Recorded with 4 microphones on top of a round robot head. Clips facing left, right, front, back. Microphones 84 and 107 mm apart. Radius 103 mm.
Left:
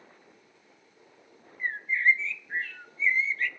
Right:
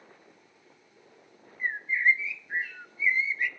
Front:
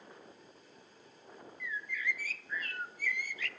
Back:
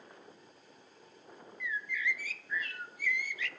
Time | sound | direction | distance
1.6 | a bird | 15° right | 0.7 m